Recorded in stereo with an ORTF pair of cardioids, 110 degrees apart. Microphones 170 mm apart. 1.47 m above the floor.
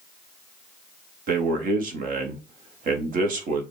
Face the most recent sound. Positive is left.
turn(degrees=-55)